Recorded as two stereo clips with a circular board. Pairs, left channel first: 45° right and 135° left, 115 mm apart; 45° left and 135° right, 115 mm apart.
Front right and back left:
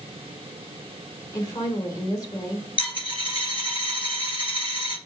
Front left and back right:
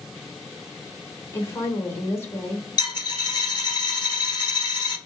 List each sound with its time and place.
1.3 s a woman speaking: 10° right, 1.3 m
2.8 s a dropped coin: 5° right, 2 m